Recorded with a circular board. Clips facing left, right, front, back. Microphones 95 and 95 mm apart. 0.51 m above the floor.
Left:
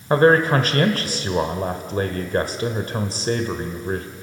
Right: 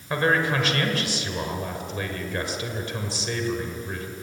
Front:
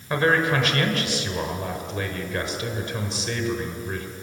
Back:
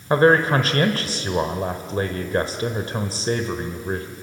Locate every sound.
0.1 s a man speaking: 130° left, 1.6 m